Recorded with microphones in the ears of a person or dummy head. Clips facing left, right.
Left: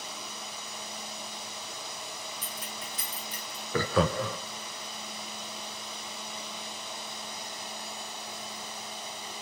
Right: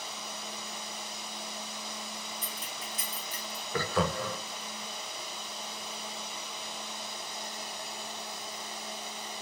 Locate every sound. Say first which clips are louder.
2.4 s keys jangling: left 1 dB; 45° left (ahead or behind), 2.5 m; by 3.6 s 60° left (ahead or behind), 2.5 m
3.7 s laughter: left 4 dB; 60° left (ahead or behind), 0.5 m